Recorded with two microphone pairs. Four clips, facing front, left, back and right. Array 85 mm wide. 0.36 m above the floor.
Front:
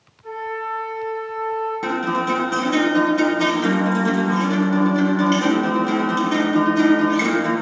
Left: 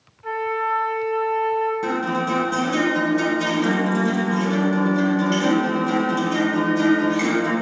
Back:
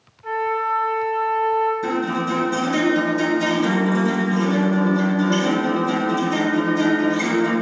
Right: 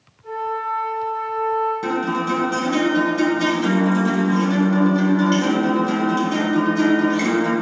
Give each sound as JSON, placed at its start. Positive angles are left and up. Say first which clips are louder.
{"t": 0.2, "sound": "a flute", "louder": "left 1 dB, back 5 dB", "azimuth_deg": 115, "distance_m": 1.7}
{"t": 1.8, "sound": "a guitar", "louder": "right 1 dB, front 1 dB", "azimuth_deg": 0, "distance_m": 2.5}